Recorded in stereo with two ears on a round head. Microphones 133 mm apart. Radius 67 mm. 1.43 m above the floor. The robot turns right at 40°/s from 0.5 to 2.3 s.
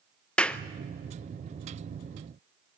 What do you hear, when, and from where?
0.4 s a clap: 10° left (ahead or behind), 0.6 m